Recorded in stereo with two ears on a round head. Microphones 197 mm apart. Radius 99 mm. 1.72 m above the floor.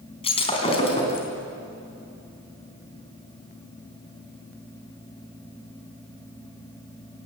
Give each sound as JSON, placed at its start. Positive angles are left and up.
{"t": 0.2, "sound": "breaking glass", "side_deg": 25, "distance_m": 4.0}